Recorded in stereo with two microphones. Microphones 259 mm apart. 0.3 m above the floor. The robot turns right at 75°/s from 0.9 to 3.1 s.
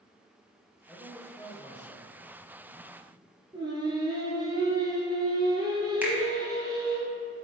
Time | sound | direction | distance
0.9 | a man speaking | 5° right | 1.0 m
3.5 | singing | 15° right (ahead or behind) | 1.2 m
6.0 | a finger snap | 5° right (ahead or behind) | 1.2 m